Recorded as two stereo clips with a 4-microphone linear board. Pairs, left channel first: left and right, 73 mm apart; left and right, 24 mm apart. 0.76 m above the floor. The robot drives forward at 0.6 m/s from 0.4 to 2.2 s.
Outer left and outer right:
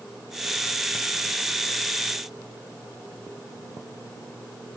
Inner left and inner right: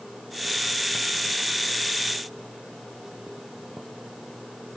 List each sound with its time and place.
Only background noise.